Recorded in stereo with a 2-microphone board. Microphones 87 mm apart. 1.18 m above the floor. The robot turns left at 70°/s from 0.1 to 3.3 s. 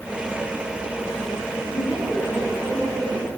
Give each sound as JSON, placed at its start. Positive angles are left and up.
{"t": 1.7, "sound": "a woman speaking", "azimuth_deg": 40, "distance_m": 8.0}